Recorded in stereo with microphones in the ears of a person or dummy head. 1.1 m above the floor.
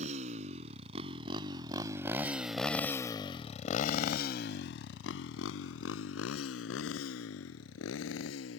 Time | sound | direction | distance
0.0 | a motorcycle | 45° right (ahead or behind) | ?